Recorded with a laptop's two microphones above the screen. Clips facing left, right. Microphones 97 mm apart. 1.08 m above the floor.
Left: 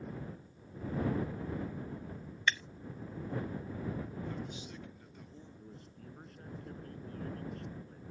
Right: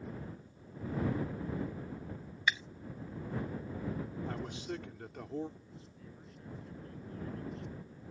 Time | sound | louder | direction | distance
2.5 | breaking glass | even | 10° right (ahead or behind) | ?
4.3 | a man speaking | right 3 dB | 75° right (ahead or behind) | ?
5.6 | a man speaking | left 2 dB | 50° left (ahead or behind) | ?